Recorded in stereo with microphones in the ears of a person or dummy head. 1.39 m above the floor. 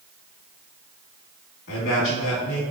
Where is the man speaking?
65° left (ahead or behind), 1.6 m.